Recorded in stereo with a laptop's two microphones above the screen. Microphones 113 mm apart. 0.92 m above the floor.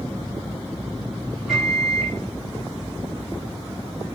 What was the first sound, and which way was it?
A microwave, centre (ahead or behind).